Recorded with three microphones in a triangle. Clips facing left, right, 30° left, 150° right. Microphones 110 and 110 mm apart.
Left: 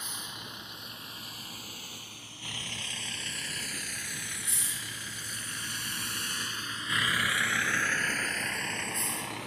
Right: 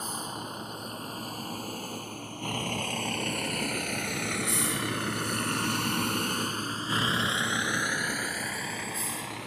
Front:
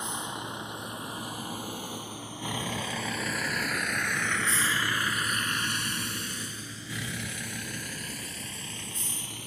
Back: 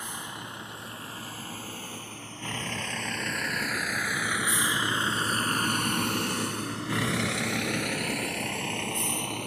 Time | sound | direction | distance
0.0 | a vehicle | 40° right | ?